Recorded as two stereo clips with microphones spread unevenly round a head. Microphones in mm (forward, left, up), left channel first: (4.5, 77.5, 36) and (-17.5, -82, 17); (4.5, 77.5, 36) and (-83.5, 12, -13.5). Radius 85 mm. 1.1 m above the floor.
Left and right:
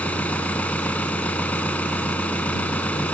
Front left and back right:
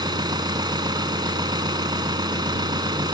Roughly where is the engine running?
Behind.